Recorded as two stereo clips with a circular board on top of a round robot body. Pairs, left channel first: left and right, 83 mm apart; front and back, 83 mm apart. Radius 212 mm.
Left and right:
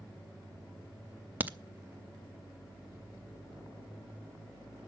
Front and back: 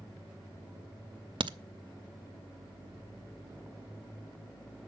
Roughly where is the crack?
Behind.